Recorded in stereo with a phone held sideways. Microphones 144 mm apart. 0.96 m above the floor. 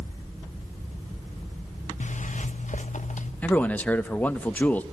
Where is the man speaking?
10° left (ahead or behind), 1.1 m.